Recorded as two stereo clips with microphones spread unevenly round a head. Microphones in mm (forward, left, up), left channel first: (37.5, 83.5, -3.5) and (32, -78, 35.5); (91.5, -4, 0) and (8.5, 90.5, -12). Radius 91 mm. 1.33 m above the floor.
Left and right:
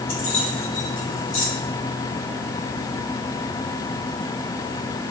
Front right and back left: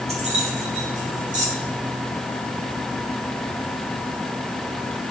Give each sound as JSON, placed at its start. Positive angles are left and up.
{"t": 0.1, "sound": "keys jangling", "azimuth_deg": 95, "distance_m": 2.5}